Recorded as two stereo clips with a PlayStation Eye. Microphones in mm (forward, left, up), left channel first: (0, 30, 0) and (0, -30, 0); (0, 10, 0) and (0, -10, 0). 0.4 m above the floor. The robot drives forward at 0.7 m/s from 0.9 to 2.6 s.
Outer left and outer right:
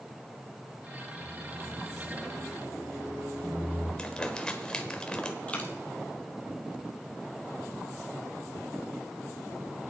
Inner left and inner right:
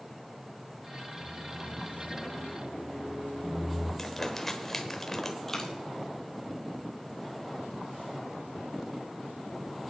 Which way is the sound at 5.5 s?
25° left (ahead or behind).